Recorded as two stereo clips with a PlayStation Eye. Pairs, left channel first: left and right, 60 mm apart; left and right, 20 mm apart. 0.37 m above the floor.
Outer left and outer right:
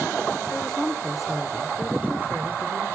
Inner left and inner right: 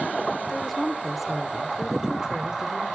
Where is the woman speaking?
15° left (ahead or behind), 0.9 m; by 2.9 s 45° right (ahead or behind), 1.2 m.